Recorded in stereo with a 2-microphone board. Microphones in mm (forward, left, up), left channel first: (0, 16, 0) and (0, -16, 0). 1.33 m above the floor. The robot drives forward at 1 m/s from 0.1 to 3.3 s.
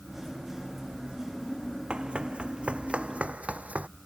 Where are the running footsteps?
35° right (ahead or behind); by 3.9 s 50° right (ahead or behind).